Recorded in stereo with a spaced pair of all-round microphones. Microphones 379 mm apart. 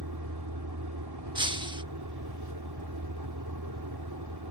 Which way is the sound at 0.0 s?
75° right (ahead or behind).